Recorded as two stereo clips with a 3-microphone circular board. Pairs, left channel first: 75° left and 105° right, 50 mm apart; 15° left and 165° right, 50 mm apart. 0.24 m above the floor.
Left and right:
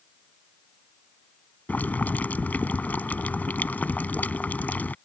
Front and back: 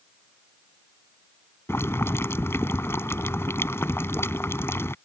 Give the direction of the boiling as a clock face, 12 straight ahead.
11 o'clock.